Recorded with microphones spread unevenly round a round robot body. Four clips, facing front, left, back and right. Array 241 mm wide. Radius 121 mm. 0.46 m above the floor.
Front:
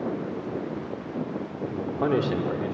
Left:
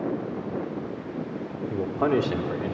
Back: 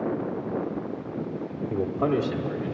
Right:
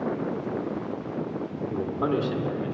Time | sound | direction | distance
1.7 | a man speaking | 170° right | 0.8 m